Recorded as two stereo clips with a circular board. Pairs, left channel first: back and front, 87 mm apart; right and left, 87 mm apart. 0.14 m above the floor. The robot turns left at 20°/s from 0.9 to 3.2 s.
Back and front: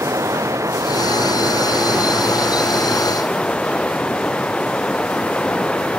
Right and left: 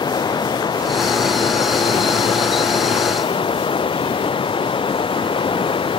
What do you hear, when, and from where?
0.0 s running water: 55° right; by 6.0 s 105° right